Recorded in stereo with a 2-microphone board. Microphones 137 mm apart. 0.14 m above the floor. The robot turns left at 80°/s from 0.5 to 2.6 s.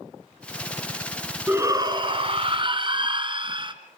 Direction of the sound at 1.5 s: 25° right.